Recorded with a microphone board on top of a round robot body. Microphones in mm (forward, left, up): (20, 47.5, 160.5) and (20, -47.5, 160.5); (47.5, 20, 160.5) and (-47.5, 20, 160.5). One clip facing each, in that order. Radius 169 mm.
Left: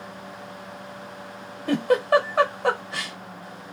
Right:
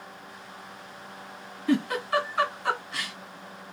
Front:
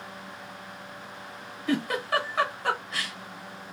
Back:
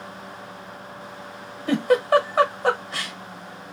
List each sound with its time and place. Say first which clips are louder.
1.7 s a giggle: left 6 dB, back 9 dB; 125° left, 1.0 m